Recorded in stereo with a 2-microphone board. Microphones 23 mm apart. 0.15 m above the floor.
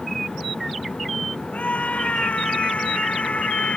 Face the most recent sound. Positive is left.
turn(degrees=70)  # may be behind; listen again after turning